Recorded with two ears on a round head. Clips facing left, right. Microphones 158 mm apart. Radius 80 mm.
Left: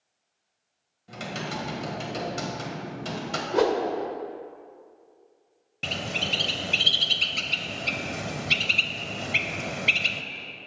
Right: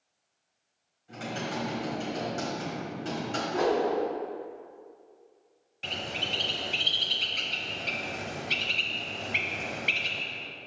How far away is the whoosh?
About 1.3 m.